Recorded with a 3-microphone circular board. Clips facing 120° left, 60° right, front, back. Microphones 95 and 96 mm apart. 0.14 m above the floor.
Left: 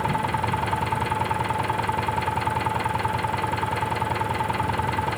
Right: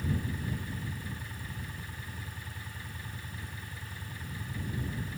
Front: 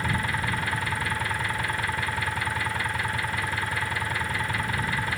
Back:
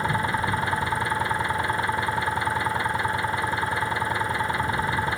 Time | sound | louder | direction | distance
0.0 | an engine running | left 12 dB, back 4 dB | 115° left | ?